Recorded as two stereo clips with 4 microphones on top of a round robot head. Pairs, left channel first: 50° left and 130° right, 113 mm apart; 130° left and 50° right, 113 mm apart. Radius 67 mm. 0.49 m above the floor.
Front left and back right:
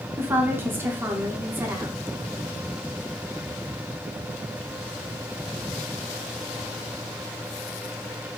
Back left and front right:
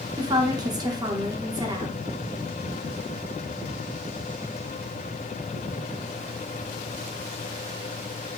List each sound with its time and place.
0.2 s a woman speaking: 75° right, 1.0 m